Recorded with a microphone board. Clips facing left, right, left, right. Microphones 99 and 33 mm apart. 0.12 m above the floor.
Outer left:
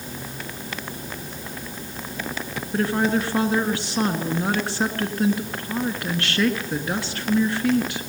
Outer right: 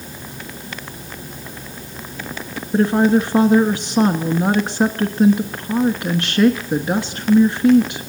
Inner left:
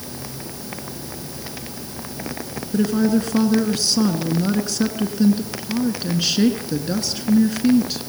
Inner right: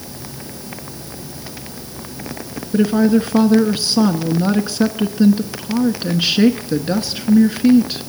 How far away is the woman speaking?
About 1.1 m.